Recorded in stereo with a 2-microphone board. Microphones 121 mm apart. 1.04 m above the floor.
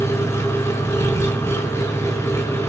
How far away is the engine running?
About 4.5 m.